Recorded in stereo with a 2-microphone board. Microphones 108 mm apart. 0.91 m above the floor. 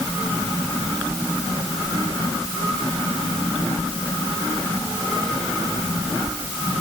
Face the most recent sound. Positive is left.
No sound to turn to.